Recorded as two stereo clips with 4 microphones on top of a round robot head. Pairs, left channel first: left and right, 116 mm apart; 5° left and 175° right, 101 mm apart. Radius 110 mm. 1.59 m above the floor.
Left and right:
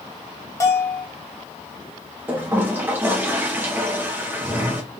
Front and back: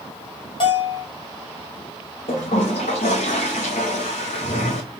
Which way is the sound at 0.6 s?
30° left.